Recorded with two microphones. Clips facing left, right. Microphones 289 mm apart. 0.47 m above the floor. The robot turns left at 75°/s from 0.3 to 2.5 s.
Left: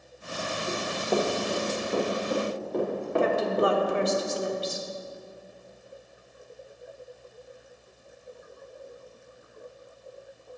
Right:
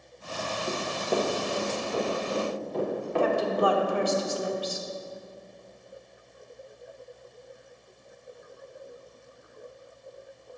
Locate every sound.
0.7 s running footsteps: 40° right (ahead or behind), 1.7 m; by 4.1 s 50° left (ahead or behind), 4 m
3.2 s a woman speaking: 25° left (ahead or behind), 0.8 m